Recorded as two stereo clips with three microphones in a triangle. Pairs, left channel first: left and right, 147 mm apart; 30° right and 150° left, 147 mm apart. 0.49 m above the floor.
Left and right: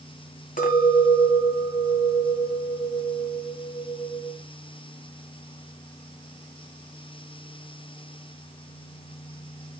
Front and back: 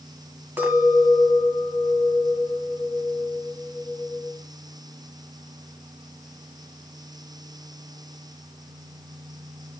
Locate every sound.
0.6 s a clink: 75° left, 1.9 m